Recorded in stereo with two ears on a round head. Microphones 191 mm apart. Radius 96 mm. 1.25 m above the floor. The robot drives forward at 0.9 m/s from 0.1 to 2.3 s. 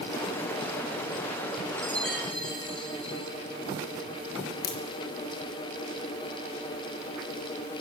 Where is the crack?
50° left (ahead or behind), 3 m.